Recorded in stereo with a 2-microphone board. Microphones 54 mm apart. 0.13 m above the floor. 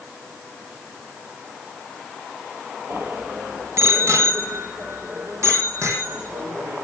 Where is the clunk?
No clunk in this recording.